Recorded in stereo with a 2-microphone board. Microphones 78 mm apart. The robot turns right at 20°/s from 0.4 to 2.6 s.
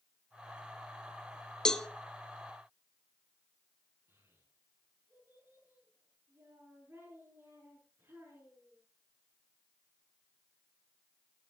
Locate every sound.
1.6 s a cowbell: 10° left (ahead or behind), 0.6 m; by 1.9 s 5° left (ahead or behind), 0.6 m
4.1 s a child speaking: 35° right (ahead or behind), 7.5 m